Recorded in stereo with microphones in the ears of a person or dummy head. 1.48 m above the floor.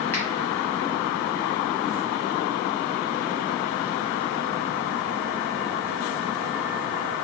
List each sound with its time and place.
0.1 s a finger snap: 10° left (ahead or behind), 0.7 m